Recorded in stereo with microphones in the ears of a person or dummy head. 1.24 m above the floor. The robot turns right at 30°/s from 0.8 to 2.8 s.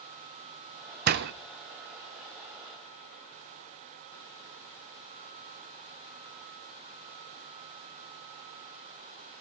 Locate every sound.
1.1 s a door slam: 40° right (ahead or behind), 0.7 m; by 1.3 s 50° right (ahead or behind), 0.7 m